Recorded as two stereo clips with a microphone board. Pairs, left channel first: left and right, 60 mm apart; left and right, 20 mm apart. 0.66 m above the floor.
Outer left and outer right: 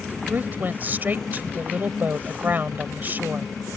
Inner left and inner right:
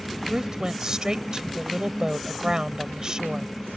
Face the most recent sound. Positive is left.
turn(degrees=-30)  # may be behind; listen again after turning